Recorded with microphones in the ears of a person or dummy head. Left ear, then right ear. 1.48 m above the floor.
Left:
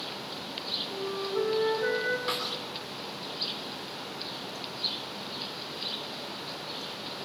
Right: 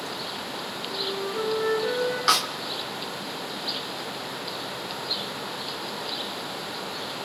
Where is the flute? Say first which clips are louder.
Right 3 dB; 65° left (ahead or behind), 6.5 m.